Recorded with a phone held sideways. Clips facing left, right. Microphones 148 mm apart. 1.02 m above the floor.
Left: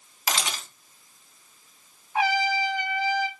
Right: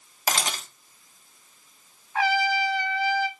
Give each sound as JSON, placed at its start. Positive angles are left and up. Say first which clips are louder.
{"t": 0.3, "sound": "a camera shutter", "louder": "right 2 dB", "side_deg": -45, "distance_m": 0.9}
{"t": 2.1, "sound": "a trumpet", "louder": "even", "side_deg": 20, "distance_m": 0.5}